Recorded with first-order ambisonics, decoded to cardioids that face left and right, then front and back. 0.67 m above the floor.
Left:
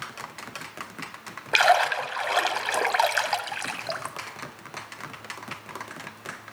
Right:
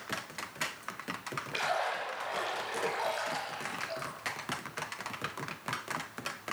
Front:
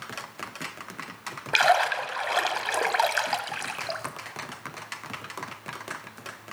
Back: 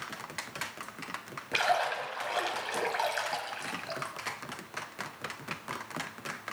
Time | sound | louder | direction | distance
1.5 | a splash | left 13 dB, front 7 dB | 60° left | 1.1 m